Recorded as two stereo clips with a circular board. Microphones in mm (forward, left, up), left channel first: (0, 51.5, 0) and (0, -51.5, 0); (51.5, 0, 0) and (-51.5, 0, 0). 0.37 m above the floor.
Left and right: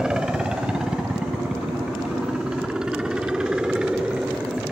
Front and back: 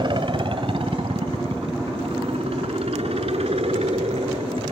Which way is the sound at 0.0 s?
170° right.